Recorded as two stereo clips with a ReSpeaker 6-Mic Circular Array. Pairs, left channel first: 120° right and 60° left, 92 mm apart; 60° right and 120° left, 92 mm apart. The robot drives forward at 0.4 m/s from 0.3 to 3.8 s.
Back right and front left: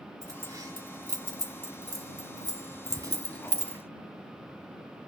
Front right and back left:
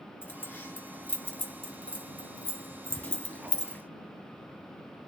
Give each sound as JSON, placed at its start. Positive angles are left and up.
{"t": 0.2, "sound": "keys jangling", "azimuth_deg": 10, "distance_m": 2.5}